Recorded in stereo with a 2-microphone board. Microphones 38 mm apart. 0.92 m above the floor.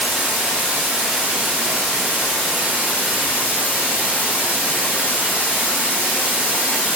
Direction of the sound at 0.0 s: 35° right (ahead or behind).